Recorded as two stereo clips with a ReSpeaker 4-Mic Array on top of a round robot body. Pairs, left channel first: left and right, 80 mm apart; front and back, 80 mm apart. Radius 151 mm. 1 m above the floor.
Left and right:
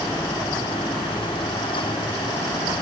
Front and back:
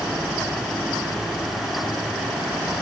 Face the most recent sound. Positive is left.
No sound to turn to.